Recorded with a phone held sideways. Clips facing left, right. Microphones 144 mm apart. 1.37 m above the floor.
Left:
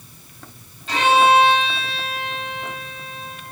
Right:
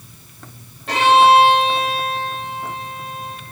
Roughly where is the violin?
Right.